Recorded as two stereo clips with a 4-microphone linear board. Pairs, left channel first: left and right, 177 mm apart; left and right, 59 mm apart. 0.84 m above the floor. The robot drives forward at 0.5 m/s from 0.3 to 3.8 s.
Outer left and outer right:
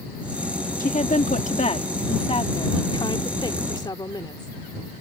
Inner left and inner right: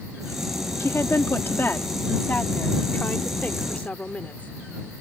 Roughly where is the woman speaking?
Left.